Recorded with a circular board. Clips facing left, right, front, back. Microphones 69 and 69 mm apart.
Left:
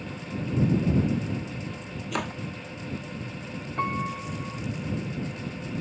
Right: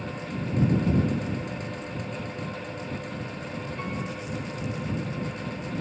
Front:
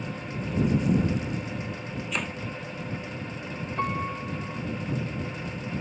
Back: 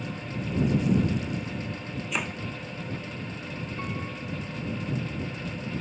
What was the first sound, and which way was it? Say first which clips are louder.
Chopping: left 4 dB, back 1 dB; 95° left.